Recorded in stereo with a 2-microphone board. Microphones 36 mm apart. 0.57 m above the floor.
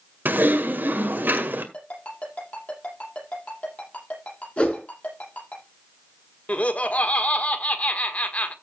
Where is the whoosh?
35° left (ahead or behind), 4.5 m.